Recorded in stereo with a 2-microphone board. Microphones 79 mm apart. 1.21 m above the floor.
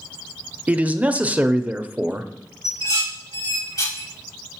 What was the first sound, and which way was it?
A man speaking, 20° right (ahead or behind).